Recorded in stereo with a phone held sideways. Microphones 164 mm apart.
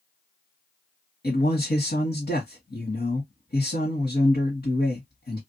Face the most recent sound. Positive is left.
turn(degrees=75)  # may be behind; listen again after turning